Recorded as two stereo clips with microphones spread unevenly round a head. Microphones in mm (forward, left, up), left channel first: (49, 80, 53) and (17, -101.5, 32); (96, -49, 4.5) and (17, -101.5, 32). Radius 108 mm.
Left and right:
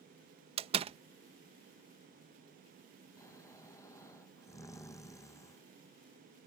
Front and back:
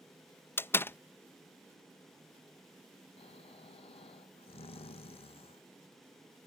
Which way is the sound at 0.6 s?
45° right.